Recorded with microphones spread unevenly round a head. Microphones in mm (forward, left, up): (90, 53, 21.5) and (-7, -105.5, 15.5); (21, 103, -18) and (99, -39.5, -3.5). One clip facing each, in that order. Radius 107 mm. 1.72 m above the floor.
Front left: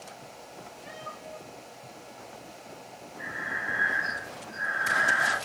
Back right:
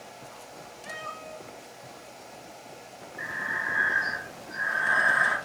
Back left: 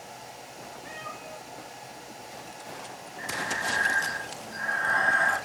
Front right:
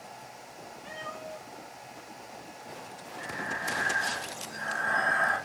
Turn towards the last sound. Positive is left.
turn(degrees=-150)